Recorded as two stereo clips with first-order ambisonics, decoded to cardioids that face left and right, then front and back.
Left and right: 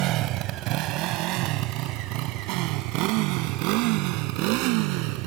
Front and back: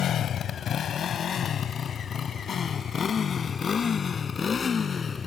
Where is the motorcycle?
60° right; by 5.3 s 75° right.